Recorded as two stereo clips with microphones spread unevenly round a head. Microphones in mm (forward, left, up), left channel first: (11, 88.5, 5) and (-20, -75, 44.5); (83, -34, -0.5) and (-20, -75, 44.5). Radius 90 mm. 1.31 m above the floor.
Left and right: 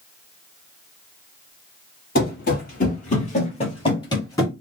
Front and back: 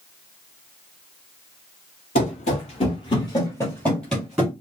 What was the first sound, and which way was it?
Running footsteps, 50° left.